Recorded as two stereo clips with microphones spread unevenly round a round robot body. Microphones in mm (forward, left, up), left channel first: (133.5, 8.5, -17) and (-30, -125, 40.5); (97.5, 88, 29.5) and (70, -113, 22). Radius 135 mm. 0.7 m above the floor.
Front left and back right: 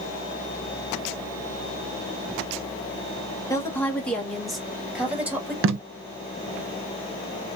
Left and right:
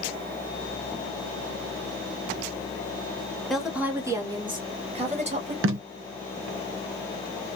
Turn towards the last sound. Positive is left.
turn(degrees=-105)